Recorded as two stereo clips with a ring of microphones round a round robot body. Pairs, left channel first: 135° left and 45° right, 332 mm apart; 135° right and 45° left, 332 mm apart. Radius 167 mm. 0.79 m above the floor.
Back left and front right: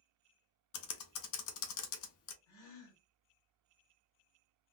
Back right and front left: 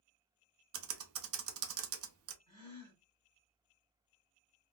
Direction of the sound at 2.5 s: 125° left.